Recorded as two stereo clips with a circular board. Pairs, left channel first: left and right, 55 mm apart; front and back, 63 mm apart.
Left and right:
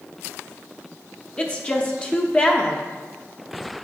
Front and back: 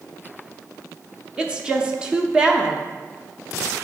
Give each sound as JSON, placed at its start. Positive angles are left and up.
{"t": 1.4, "sound": "a woman speaking", "azimuth_deg": 125, "distance_m": 0.8}